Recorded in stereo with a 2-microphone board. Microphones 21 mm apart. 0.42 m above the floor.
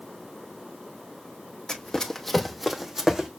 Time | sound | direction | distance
1.7 | running footsteps | 35° left (ahead or behind) | 1.2 m